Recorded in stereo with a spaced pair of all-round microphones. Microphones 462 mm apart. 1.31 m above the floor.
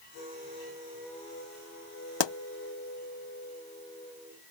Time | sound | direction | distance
2.2 | a pop | 65° left (ahead or behind) | ?